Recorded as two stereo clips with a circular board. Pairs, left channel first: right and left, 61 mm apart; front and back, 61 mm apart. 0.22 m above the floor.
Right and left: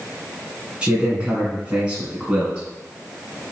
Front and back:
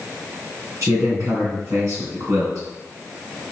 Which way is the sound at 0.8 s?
160° left.